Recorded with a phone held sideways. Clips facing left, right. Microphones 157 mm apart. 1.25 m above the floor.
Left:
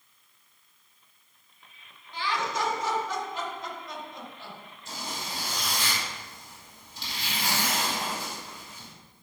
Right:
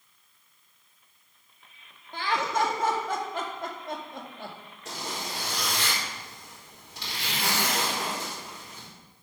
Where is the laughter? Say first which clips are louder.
Right 3 dB; 55° right (ahead or behind), 1.8 m.